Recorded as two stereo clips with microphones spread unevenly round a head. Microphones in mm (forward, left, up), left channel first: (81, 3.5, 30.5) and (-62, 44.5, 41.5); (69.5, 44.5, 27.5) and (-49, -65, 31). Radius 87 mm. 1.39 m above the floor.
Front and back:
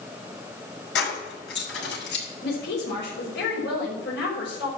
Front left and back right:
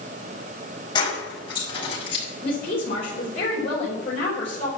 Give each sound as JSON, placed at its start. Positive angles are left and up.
{"t": 0.9, "sound": "keys jangling", "azimuth_deg": -20, "distance_m": 5.0}
{"t": 2.4, "sound": "a woman speaking", "azimuth_deg": -10, "distance_m": 5.0}